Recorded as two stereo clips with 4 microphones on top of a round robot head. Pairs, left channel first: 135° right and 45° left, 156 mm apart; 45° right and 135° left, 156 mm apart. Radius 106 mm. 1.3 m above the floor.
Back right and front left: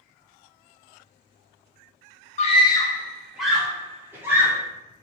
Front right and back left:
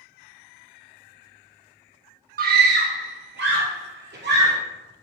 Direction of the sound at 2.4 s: 175° left.